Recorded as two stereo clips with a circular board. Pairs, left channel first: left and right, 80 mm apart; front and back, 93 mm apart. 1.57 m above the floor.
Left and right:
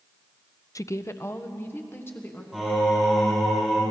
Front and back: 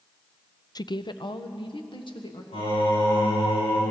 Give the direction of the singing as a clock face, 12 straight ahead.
12 o'clock.